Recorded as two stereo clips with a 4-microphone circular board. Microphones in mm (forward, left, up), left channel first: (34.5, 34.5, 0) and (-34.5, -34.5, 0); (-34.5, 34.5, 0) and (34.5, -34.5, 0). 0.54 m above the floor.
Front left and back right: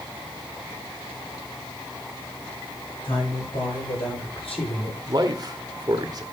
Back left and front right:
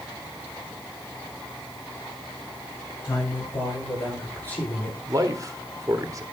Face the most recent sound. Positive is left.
turn(degrees=-95)